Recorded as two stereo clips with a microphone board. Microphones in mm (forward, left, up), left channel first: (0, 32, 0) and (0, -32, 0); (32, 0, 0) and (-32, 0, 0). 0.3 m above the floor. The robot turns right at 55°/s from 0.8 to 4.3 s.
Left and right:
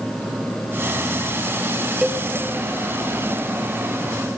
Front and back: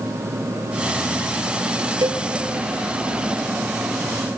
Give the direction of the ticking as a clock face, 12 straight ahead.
No ticking in this recording.